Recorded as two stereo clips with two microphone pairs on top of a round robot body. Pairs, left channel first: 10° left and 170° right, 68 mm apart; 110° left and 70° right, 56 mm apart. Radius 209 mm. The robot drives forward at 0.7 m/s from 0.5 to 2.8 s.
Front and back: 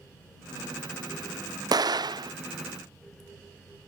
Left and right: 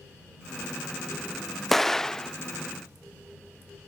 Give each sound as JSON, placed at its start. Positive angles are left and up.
{"t": 1.7, "sound": "an explosion", "azimuth_deg": -165}